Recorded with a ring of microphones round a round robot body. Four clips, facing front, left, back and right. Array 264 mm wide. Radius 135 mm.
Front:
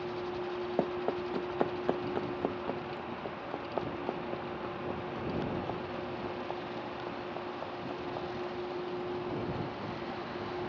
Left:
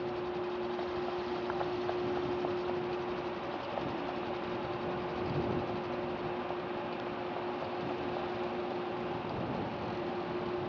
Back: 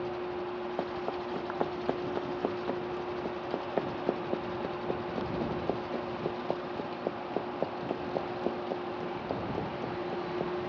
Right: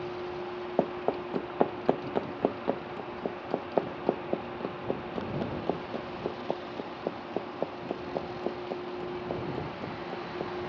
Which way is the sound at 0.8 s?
70° right.